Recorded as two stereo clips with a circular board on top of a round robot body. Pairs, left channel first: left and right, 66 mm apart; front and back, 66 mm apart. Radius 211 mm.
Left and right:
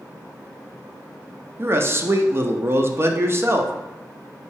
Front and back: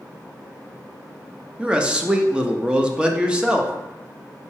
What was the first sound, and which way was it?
A man speaking, 115° right.